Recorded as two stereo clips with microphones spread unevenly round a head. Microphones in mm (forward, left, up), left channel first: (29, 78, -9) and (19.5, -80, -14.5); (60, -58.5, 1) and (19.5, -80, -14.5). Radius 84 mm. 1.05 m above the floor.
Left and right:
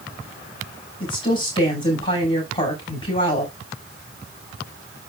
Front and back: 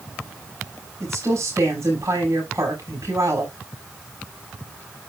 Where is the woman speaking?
150° left, 6 m.